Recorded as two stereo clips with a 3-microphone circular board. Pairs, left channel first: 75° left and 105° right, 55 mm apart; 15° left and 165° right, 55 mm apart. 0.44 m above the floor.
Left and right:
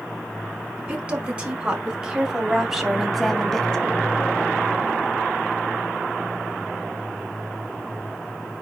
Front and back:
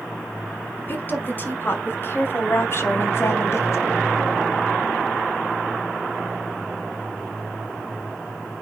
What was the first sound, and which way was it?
A woman speaking, 40° right.